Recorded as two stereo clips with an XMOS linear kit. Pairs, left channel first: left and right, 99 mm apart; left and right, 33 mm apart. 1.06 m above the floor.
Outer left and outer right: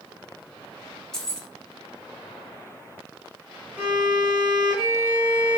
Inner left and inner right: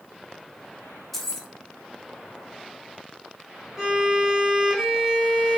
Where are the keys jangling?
5° left (ahead or behind), 0.6 m.